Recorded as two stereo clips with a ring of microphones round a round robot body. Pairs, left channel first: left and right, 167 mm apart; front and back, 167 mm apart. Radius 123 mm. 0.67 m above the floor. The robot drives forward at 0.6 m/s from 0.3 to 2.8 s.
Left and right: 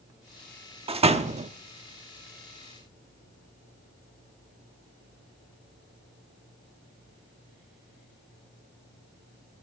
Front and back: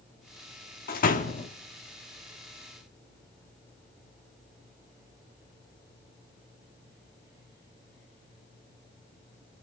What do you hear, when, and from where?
0.9 s a door slam: 35° right, 1.2 m; by 1.5 s 50° right, 1.0 m